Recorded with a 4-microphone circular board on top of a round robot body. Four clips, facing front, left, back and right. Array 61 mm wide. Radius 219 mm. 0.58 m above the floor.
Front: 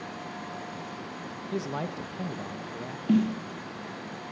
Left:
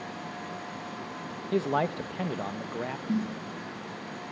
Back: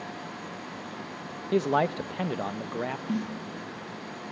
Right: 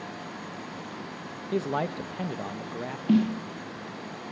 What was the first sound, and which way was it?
A man speaking, 160° left.